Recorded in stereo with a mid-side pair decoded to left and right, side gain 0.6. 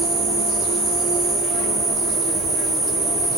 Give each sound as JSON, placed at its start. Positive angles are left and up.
{"t": 0.0, "sound": "an insect", "azimuth_deg": -60, "distance_m": 0.8}